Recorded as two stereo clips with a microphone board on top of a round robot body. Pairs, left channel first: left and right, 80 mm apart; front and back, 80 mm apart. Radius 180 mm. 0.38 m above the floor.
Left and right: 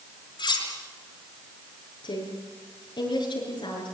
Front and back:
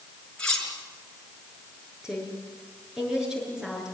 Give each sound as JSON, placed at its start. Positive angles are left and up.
{"t": 0.4, "sound": "cutlery clinking", "azimuth_deg": 80, "distance_m": 5.0}
{"t": 2.0, "sound": "a woman speaking", "azimuth_deg": 100, "distance_m": 7.0}